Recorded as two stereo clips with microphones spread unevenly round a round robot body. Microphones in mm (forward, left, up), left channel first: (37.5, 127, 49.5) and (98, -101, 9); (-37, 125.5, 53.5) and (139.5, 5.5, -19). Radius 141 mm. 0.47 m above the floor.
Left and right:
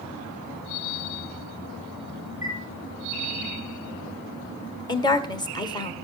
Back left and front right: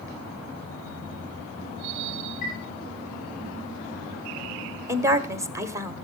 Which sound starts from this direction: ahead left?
A woman speaking, at 4.9 s.